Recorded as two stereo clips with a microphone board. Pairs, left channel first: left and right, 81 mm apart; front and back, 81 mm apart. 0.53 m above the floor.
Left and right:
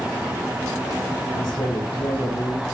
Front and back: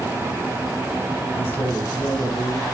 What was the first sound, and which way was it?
A man speaking, 65° left.